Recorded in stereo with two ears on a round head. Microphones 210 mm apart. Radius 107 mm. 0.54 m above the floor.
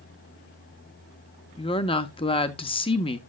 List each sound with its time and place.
1.6 s a woman speaking: 20° left (ahead or behind), 0.7 m